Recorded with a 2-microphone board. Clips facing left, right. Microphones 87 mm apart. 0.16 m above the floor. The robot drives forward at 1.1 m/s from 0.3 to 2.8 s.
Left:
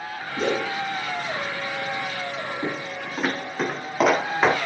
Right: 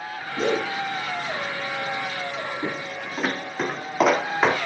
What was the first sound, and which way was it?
A whoosh, 10° left (ahead or behind).